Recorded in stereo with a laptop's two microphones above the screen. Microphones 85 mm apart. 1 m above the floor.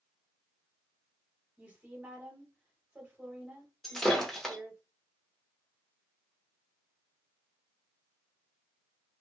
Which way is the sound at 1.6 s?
20° right (ahead or behind).